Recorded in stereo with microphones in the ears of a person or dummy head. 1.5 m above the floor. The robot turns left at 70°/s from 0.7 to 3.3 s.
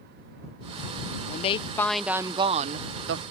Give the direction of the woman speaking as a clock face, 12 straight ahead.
10 o'clock.